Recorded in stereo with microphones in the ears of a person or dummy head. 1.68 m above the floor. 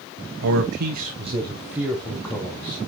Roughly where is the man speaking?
Right.